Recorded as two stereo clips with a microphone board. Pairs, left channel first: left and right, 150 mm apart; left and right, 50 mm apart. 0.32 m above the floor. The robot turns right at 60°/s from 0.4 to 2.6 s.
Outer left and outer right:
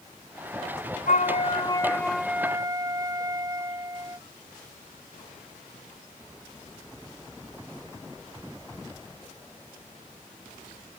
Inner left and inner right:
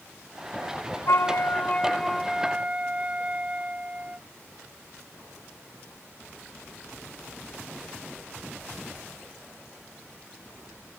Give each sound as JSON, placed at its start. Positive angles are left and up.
{"t": 1.1, "sound": "a flute", "azimuth_deg": 110}